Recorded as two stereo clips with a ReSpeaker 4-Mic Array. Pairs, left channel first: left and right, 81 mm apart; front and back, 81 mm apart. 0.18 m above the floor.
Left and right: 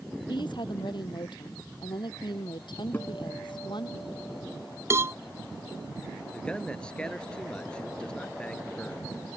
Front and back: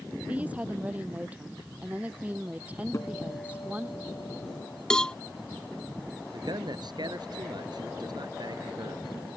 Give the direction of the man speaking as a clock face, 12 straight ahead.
6 o'clock.